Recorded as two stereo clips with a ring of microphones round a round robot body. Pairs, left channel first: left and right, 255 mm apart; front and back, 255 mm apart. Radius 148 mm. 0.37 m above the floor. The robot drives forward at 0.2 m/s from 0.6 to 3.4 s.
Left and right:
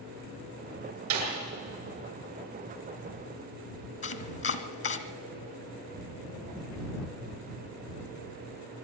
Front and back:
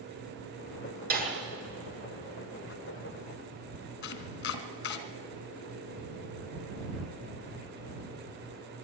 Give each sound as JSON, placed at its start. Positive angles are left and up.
{"t": 1.1, "sound": "a snare drum", "azimuth_deg": -130, "distance_m": 7.0}
{"t": 4.0, "sound": "chopping", "azimuth_deg": 55, "distance_m": 1.3}